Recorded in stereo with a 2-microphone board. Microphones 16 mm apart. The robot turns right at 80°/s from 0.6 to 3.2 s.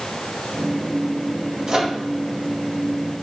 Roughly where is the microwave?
Right.